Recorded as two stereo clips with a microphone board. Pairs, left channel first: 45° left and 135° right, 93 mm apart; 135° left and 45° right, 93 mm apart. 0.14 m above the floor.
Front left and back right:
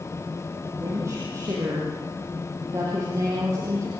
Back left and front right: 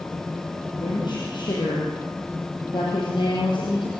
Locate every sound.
0.7 s a woman speaking: 170° left, 5.5 m